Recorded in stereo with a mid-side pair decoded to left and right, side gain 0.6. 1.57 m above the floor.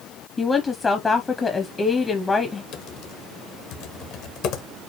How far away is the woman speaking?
About 0.8 m.